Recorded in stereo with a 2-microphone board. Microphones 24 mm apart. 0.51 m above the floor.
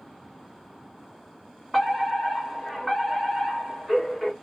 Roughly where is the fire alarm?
Centre.